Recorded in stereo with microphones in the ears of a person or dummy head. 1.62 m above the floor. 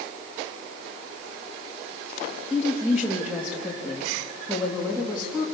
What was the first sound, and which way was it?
A woman speaking, 10° right (ahead or behind).